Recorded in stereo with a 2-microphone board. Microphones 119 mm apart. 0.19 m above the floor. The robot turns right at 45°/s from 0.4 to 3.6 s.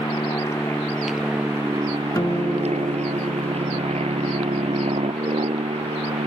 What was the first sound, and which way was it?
An aircraft, 150° left.